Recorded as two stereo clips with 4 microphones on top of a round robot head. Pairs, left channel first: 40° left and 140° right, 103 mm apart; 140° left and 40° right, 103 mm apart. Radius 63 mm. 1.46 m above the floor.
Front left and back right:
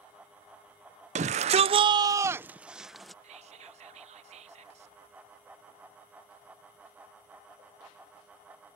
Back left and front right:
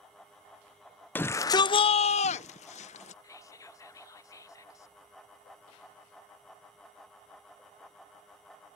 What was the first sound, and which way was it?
A shout, 145° right.